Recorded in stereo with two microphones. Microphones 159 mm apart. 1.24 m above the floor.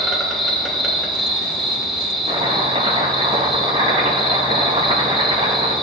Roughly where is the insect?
Centre.